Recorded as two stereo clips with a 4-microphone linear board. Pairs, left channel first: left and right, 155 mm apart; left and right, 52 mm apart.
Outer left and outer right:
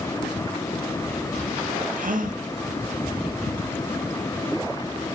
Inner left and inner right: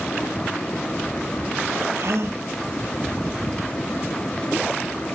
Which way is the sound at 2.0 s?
60° right (ahead or behind).